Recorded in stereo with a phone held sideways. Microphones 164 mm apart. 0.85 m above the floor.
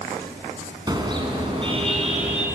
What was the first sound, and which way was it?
A car horn, 25° right (ahead or behind).